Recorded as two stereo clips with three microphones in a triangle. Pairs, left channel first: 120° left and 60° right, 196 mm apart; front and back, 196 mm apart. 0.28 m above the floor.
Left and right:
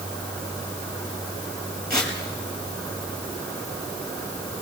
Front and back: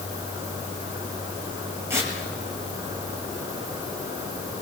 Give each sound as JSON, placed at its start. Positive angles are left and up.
{"t": 1.9, "sound": "tearing paper", "azimuth_deg": -100, "distance_m": 6.5}